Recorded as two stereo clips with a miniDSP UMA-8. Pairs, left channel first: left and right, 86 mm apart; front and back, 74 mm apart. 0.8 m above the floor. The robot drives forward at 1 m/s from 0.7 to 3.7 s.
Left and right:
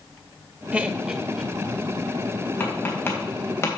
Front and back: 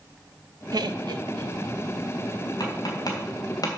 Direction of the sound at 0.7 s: 160° right.